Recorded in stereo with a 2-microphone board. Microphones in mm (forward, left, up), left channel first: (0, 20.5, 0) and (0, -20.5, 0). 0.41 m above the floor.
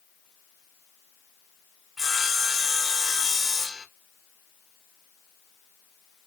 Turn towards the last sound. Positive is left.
turn(degrees=-10)  # may be behind; listen again after turning